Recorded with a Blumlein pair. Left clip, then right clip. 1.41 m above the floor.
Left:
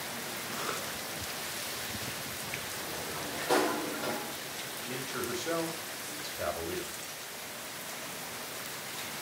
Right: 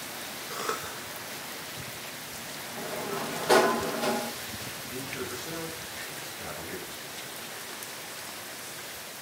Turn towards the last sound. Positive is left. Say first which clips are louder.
# left 1 dB
turn(degrees=60)